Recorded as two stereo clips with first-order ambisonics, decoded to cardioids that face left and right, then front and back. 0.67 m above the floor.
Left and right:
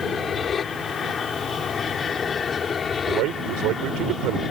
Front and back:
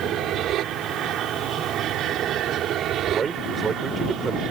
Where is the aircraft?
150° left.